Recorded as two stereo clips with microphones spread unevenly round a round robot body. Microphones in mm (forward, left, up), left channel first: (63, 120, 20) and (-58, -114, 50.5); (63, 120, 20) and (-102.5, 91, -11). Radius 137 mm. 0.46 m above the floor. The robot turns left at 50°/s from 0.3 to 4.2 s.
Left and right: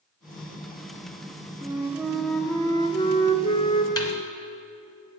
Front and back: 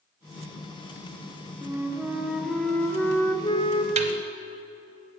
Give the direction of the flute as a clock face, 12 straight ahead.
6 o'clock.